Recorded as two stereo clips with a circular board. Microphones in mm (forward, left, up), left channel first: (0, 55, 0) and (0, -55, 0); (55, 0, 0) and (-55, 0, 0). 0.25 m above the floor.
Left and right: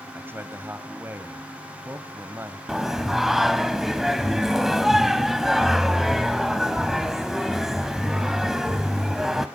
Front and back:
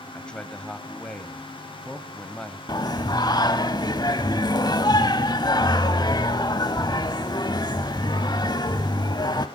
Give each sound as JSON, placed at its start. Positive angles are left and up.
{"t": 0.1, "sound": "a man speaking", "azimuth_deg": -65, "distance_m": 1.3}
{"t": 2.7, "sound": "singing", "azimuth_deg": -5, "distance_m": 0.9}